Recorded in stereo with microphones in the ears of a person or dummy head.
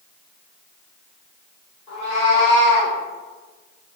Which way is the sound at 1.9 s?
35° left (ahead or behind).